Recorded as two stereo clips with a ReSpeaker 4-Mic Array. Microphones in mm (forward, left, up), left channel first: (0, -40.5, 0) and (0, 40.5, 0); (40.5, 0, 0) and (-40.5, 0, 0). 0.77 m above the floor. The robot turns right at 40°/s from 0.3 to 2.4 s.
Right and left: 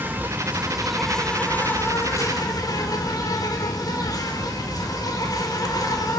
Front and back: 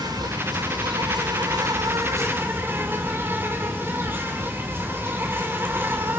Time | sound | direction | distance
0.0 | an insect | 150° left | 3.5 m